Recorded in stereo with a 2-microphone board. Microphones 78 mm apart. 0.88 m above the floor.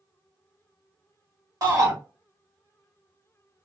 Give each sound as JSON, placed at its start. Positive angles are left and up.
{"t": 1.6, "sound": "a shout", "side_deg": -55, "distance_m": 1.6}